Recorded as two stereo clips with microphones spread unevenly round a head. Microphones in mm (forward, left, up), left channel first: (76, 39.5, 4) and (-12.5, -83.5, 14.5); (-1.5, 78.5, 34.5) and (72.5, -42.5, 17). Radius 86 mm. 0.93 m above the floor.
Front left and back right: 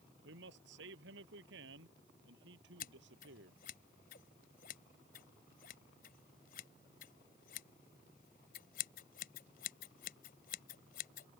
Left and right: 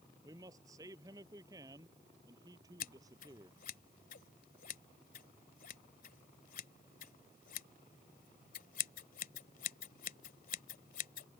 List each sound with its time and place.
0.2 s a man speaking: 130° right
2.8 s scissors: 100° left